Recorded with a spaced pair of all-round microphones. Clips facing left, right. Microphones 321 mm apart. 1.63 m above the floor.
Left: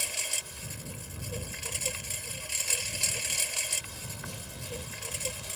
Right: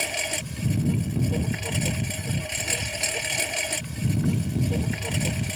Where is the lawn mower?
80° right; by 5.6 s 75° right (ahead or behind).